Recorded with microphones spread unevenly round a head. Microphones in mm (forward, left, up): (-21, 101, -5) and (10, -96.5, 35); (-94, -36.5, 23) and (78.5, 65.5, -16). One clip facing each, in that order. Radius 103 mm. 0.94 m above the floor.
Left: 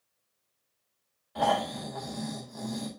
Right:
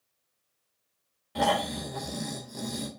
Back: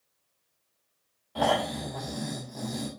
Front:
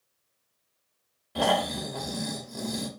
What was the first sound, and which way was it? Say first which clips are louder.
Snoring: right 1 dB, front 1 dB; 30° right.